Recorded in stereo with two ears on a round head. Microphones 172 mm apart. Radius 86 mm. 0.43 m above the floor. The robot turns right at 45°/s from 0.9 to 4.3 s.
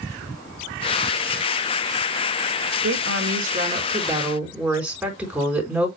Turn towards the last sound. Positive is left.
turn(degrees=-5)